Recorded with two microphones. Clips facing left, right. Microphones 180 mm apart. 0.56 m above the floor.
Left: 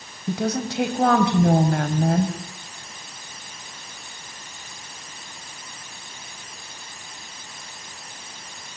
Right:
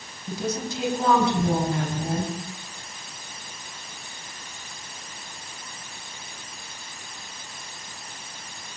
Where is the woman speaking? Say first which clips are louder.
Left 4 dB; 75° left (ahead or behind), 4 m.